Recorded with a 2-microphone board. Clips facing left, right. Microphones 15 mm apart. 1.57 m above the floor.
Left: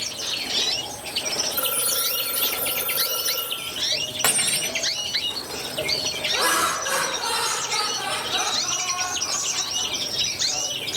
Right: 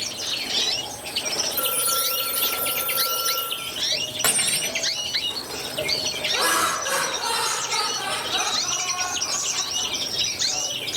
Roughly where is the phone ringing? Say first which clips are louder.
Right 1 dB; left.